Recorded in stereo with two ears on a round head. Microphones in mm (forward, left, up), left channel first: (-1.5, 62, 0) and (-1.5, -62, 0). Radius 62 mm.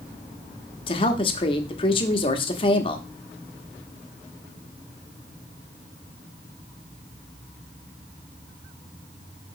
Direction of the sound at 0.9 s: 40° left (ahead or behind).